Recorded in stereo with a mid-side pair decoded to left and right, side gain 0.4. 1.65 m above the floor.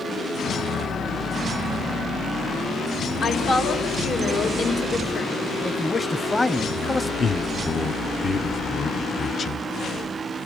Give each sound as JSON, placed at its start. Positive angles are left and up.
{"t": 3.2, "sound": "a woman speaking", "azimuth_deg": 60, "distance_m": 4.0}
{"t": 5.6, "sound": "a man speaking", "azimuth_deg": 10, "distance_m": 1.1}
{"t": 7.2, "sound": "a man speaking", "azimuth_deg": 40, "distance_m": 1.1}